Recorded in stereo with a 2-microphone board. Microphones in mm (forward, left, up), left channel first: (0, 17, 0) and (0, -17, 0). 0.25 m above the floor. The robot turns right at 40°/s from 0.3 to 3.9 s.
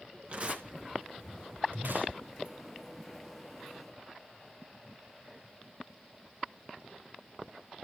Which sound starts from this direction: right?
Tearing paper, at 0.3 s.